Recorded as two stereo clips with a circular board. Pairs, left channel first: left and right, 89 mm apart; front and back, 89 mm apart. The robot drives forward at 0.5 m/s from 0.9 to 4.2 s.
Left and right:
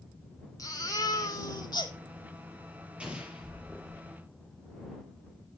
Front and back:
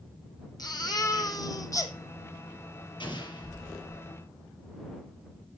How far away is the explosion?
About 4 m.